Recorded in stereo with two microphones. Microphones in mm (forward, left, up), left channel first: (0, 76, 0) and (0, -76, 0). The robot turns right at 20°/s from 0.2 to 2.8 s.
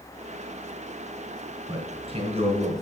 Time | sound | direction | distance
1.7 | a man speaking | 35° right (ahead or behind) | 3.5 m